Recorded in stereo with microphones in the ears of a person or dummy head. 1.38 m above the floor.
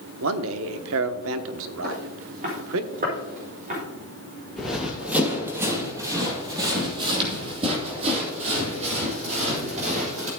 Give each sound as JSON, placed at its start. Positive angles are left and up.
{"t": 0.2, "sound": "a man speaking", "side_deg": -65, "distance_m": 1.0}
{"t": 1.8, "sound": "footsteps", "side_deg": -45, "distance_m": 3.0}
{"t": 4.6, "sound": "running footsteps", "side_deg": 5, "distance_m": 2.0}